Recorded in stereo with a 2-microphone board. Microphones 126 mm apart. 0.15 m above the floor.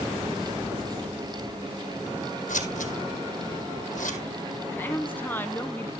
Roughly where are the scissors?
Left.